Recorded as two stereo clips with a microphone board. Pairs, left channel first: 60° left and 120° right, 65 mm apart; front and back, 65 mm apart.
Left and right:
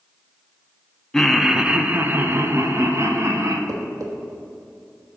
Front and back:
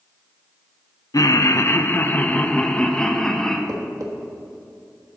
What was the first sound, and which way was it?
Laughter, 20° right.